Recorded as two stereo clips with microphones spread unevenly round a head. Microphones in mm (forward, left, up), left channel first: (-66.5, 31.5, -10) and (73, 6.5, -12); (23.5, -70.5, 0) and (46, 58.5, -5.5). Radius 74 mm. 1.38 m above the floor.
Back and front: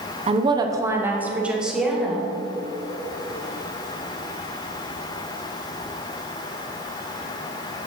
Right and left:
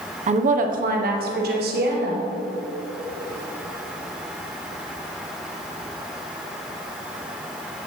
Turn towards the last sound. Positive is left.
turn(degrees=80)